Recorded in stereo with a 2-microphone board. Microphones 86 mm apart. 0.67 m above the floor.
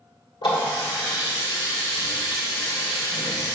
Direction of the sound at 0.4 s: 70° left (ahead or behind).